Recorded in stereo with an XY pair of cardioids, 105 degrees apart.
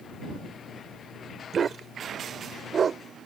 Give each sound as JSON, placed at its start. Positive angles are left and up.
{"t": 1.5, "sound": "a dog barking", "azimuth_deg": -45}